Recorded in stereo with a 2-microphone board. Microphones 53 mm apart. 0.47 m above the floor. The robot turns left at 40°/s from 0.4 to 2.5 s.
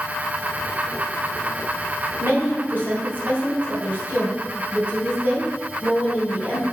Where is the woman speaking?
50° right (ahead or behind), 3 m; by 6.6 s 40° right (ahead or behind), 3 m.